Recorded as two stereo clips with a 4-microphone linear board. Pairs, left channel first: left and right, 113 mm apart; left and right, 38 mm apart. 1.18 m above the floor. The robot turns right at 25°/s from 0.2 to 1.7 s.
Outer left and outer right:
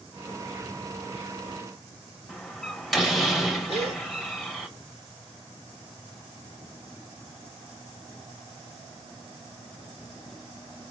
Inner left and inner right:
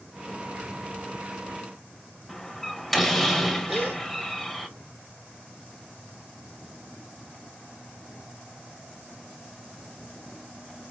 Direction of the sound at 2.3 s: Centre (ahead or behind).